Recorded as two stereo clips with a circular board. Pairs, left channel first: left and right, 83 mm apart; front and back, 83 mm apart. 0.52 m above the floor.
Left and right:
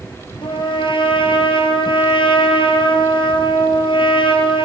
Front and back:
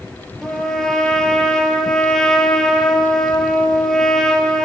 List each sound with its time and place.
0.4 s a trumpet: 85° left, 7 m